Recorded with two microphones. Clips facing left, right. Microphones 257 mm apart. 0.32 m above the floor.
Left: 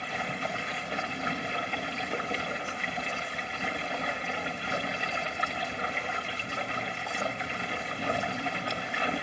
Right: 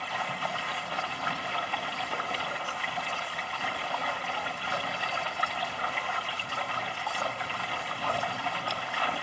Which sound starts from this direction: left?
Running water, at 0.0 s.